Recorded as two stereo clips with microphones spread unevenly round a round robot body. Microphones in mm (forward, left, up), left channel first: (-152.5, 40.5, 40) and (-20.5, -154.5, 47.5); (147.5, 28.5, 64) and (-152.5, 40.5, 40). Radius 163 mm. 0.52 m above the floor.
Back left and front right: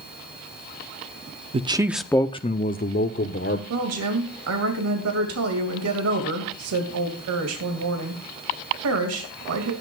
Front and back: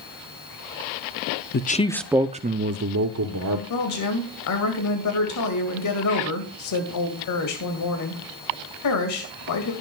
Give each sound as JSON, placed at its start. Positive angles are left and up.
{"t": 1.5, "sound": "a man speaking", "azimuth_deg": -20, "distance_m": 0.7}
{"t": 3.7, "sound": "a woman speaking", "azimuth_deg": -35, "distance_m": 2.5}